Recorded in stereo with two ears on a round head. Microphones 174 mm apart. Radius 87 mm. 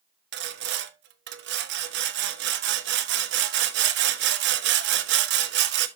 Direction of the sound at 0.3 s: 60° right (ahead or behind).